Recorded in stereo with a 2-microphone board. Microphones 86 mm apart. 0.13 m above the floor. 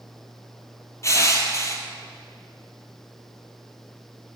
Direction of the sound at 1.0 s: 35° left (ahead or behind).